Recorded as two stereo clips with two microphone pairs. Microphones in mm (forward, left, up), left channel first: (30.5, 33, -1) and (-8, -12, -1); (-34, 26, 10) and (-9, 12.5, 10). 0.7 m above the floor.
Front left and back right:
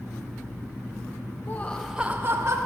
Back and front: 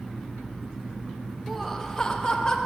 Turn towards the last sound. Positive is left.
turn(degrees=-155)